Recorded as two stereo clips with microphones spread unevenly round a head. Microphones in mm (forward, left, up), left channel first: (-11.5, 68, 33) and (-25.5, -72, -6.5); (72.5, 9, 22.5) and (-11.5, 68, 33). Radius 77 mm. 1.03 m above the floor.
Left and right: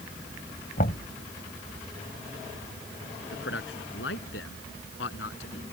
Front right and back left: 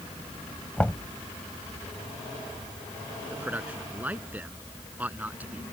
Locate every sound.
0.8 s knocking: 45° left
3.3 s a man speaking: 70° left